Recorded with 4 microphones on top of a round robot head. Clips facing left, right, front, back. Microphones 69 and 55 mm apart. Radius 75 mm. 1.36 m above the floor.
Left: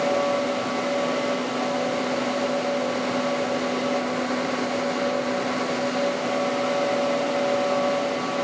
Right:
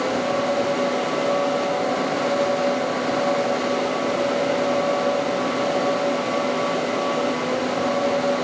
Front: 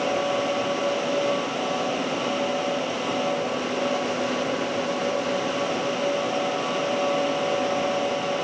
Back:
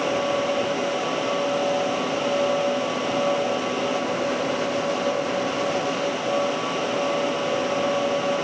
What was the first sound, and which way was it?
Only background noise.